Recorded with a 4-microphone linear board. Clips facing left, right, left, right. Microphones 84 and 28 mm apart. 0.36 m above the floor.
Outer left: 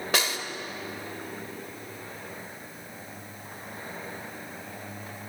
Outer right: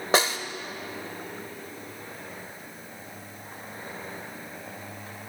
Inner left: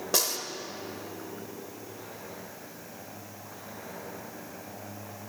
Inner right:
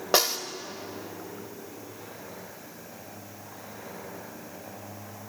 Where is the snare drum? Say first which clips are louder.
Outer right 6 dB, inner right 5 dB; 25° right (ahead or behind), 0.7 m.